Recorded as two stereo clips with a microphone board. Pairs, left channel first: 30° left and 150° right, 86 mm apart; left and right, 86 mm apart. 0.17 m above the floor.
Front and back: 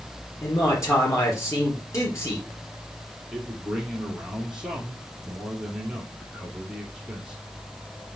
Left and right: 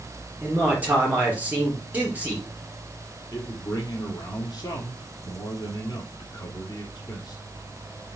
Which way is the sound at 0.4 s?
20° right.